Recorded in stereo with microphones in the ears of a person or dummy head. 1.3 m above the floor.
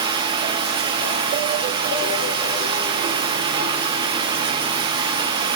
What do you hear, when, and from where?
0.0 s running water: 30° right (ahead or behind), 0.7 m